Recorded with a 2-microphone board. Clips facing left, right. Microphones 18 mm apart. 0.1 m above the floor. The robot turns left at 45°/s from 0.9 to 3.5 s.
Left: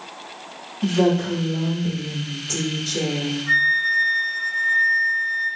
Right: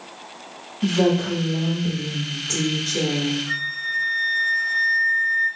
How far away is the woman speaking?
About 1.9 m.